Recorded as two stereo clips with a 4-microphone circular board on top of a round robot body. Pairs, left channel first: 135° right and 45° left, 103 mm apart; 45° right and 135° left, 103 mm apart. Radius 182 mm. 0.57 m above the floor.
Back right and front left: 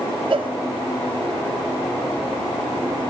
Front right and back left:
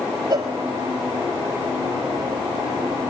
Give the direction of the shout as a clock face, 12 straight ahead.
No shout in this recording.